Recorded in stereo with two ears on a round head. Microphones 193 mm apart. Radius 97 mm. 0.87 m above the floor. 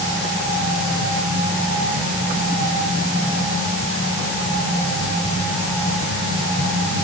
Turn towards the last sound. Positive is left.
No sound to turn to.